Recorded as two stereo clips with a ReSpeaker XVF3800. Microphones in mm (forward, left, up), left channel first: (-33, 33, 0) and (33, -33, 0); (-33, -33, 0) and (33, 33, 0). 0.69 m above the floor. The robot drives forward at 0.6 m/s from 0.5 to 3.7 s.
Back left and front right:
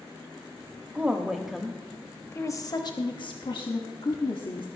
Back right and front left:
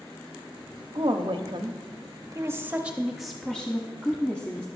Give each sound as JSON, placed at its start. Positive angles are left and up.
{"t": 0.9, "sound": "a woman speaking", "azimuth_deg": 30, "distance_m": 1.1}